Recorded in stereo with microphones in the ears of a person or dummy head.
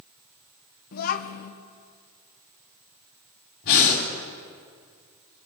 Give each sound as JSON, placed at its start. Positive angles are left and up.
{"t": 0.9, "sound": "a child speaking", "side_deg": 50, "distance_m": 1.3}
{"t": 3.6, "sound": "breathing", "side_deg": 55, "distance_m": 4.0}